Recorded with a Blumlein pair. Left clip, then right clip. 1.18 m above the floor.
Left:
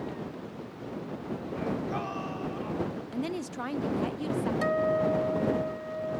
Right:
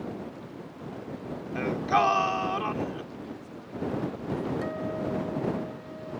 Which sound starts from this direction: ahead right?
Singing, at 1.6 s.